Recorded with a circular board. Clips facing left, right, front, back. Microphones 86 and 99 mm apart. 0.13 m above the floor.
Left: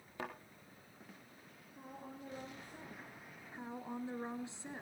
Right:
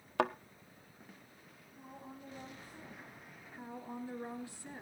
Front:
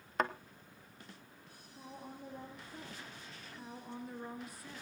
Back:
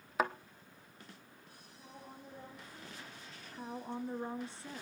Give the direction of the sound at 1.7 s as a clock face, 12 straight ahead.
11 o'clock.